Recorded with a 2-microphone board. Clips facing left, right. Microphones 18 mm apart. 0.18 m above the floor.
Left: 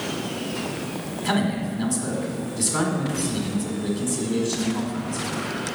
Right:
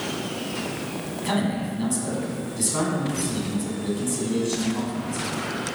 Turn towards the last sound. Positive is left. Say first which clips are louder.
# left 2 dB
turn(degrees=10)  # may be behind; listen again after turning